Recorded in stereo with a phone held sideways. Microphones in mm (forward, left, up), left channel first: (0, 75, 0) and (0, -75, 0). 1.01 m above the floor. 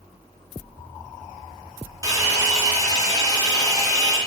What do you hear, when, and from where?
2.0 s a hair dryer: 25° right (ahead or behind), 0.6 m